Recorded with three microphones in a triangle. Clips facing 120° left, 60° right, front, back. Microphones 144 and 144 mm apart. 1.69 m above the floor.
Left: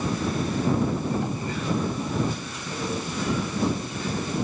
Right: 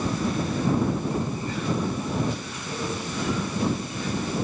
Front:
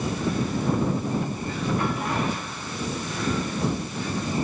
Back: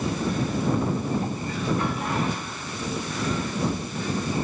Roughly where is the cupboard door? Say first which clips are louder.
Even, even; behind left.